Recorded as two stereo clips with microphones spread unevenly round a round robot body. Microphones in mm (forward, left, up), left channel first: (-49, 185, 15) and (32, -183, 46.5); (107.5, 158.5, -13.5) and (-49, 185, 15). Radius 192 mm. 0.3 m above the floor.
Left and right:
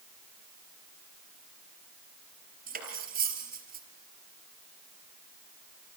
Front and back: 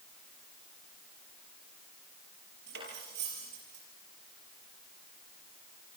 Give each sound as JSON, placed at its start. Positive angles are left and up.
{"t": 2.7, "sound": "cutlery clinking", "azimuth_deg": -145, "distance_m": 5.0}